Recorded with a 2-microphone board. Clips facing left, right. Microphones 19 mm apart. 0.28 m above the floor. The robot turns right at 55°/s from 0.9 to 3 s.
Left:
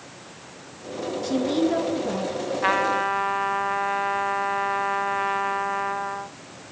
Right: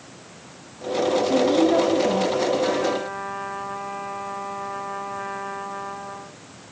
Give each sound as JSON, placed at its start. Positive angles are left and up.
{"t": 1.2, "sound": "a woman speaking", "azimuth_deg": 150, "distance_m": 4.0}
{"t": 2.6, "sound": "a trumpet", "side_deg": 60, "distance_m": 1.0}